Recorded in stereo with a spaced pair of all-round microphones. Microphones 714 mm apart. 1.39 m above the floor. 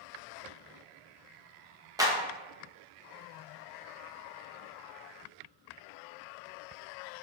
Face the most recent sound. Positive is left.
turn(degrees=-5)  # may be behind; listen again after turning